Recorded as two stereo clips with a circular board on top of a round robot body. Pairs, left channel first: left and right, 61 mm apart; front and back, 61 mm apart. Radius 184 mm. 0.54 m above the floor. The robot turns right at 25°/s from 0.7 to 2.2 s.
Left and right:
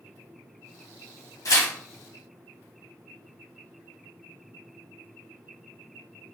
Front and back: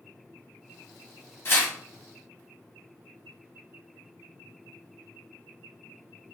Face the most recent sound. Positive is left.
turn(degrees=75)